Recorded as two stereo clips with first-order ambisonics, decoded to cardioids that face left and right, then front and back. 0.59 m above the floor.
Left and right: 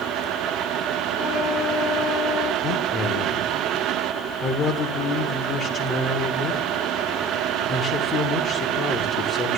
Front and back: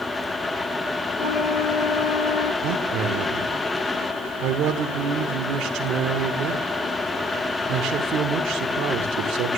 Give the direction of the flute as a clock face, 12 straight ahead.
11 o'clock.